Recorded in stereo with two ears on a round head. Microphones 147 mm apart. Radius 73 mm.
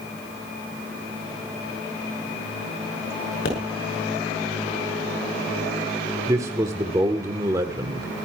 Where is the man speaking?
20° right (ahead or behind), 1.3 m.